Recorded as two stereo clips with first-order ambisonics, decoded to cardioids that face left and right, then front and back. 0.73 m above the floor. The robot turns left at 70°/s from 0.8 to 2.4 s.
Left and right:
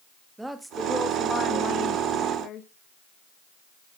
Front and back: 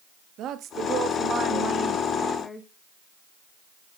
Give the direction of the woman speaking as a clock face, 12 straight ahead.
6 o'clock.